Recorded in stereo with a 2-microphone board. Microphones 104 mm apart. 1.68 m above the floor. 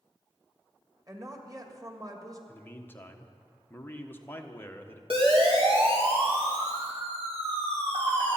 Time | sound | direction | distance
1.1 | a woman speaking | 35° right (ahead or behind) | 1.9 m
2.5 | a man speaking | 20° left (ahead or behind) | 1.3 m
5.1 | a siren | 65° right (ahead or behind) | 3.5 m